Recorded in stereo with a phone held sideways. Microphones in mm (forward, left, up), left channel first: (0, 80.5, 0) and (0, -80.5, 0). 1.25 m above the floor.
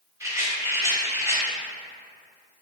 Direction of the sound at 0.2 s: 20° right (ahead or behind).